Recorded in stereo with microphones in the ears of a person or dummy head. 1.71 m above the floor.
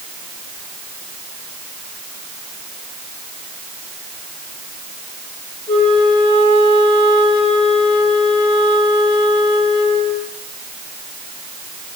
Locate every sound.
5.7 s a flute: 45° left (ahead or behind), 3 m